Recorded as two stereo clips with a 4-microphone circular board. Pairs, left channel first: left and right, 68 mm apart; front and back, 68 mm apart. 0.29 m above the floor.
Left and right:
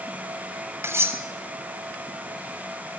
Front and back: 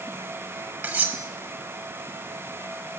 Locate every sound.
0.8 s cutlery clinking: 120° right, 1.0 m